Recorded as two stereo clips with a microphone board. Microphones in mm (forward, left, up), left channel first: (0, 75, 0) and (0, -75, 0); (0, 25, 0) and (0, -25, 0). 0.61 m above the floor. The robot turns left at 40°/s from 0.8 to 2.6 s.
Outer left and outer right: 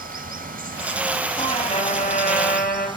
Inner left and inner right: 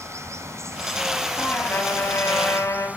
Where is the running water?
75° right, 1.4 m; by 3.0 s 145° right, 1.4 m.